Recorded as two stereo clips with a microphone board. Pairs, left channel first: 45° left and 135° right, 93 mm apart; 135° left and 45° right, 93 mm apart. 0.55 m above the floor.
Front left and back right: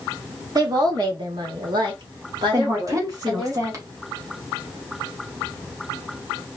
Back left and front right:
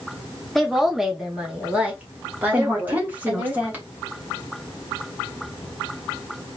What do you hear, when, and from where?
0.6 s a woman speaking: 135° right, 1.1 m; by 3.5 s 105° right, 2.5 m
2.5 s a woman speaking: 105° right, 1.5 m